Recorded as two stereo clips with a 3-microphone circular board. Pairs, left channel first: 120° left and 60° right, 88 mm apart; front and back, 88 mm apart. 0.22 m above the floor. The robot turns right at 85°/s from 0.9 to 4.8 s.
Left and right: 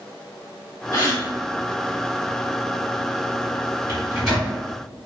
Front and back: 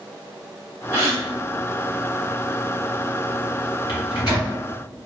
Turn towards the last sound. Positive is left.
turn(degrees=70)